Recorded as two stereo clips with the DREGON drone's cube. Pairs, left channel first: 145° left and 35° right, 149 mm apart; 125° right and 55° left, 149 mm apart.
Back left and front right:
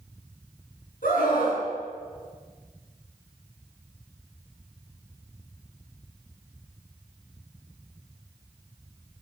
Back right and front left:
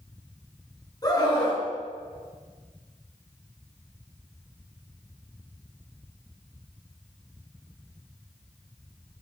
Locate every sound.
1.0 s a scream: 170° left, 6 m